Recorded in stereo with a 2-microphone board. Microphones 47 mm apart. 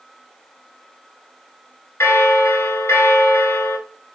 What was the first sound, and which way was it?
A bell, 75° left (ahead or behind).